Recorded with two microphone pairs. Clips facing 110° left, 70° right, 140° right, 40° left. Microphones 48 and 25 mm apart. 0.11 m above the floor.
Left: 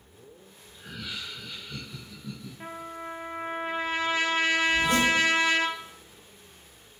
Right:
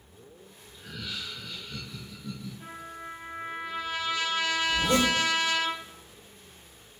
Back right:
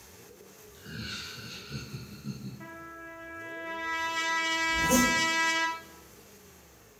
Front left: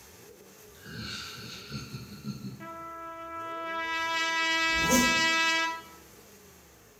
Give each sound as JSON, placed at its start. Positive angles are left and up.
{"t": 0.7, "sound": "laughter", "azimuth_deg": 145, "distance_m": 1.3}
{"t": 2.6, "sound": "a trumpet", "azimuth_deg": 105, "distance_m": 0.7}
{"t": 4.7, "sound": "a zipper", "azimuth_deg": -25, "distance_m": 1.2}